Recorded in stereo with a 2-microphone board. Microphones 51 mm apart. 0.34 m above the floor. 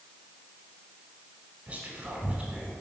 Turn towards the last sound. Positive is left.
turn(degrees=-25)  # may be behind; listen again after turning